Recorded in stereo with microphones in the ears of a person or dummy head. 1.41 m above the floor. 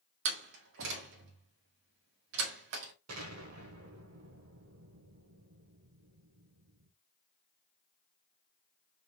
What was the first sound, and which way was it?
A door slam, 70° right (ahead or behind).